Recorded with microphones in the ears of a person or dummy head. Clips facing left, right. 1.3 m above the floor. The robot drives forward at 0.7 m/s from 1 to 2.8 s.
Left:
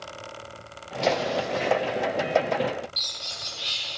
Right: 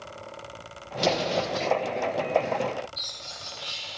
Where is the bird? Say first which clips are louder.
Left 1 dB; 45° left (ahead or behind), 2 m.